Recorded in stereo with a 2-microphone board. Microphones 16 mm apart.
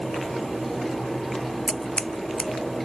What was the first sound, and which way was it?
Scissors, 85° left.